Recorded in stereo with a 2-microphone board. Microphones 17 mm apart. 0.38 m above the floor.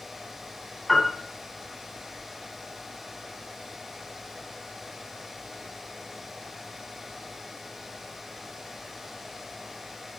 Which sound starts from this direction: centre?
A piano, at 0.9 s.